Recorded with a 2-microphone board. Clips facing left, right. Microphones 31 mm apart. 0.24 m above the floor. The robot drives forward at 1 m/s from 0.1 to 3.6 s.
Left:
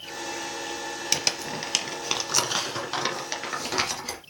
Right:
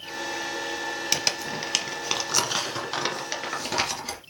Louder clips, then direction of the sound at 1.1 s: Left 1 dB; 5° right (ahead or behind).